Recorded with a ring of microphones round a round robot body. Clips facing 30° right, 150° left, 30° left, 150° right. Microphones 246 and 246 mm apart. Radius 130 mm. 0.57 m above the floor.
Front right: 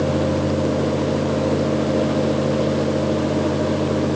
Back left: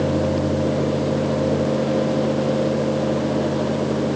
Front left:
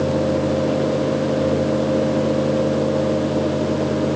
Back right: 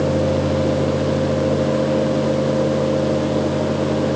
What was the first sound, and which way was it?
Only background noise.